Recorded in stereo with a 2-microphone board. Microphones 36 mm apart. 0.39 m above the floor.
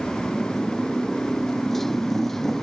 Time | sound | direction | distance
0.0 | a motorcycle | 10° left (ahead or behind) | ?